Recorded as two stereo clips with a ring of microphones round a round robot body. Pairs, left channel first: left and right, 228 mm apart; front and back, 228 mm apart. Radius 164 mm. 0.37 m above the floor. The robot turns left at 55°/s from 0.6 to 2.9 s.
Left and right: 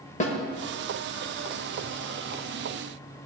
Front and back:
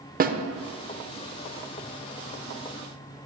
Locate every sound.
0.2 s a snare drum: 140° left, 0.6 m